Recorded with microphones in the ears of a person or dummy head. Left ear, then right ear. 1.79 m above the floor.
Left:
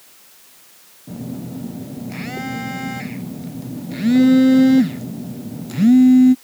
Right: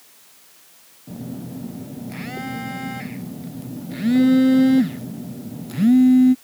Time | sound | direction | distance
1.1 | a phone buzzing | centre (ahead or behind) | ?